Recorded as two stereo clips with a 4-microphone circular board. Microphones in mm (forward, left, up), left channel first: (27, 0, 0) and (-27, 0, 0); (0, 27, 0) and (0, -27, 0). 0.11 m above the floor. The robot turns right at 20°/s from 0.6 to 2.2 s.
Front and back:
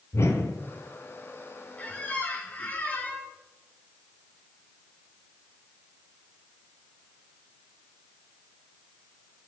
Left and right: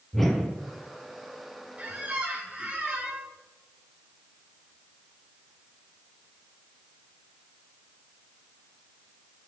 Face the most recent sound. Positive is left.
turn(degrees=-35)